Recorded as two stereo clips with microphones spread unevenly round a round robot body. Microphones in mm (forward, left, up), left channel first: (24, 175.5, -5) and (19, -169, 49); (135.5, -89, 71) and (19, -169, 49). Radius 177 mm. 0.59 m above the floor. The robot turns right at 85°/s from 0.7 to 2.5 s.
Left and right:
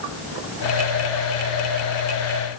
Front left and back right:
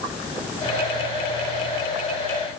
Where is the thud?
No thud in this recording.